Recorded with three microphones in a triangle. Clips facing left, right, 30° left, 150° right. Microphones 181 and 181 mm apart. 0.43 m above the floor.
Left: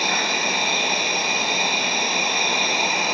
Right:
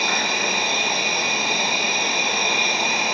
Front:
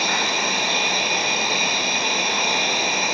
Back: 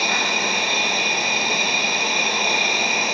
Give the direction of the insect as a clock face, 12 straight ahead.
7 o'clock.